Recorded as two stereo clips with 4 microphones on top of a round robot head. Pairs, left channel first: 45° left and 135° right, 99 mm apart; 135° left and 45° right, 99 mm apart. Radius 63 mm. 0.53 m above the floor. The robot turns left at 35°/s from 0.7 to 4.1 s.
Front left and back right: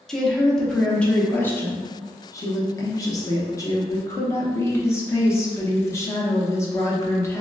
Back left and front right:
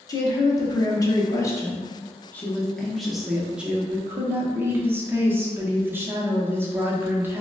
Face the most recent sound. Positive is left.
turn(degrees=10)